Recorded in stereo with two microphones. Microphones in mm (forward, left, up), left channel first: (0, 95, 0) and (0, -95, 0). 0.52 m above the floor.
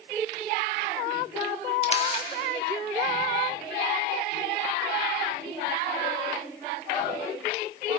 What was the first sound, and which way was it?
A camera shutter, 30° left (ahead or behind).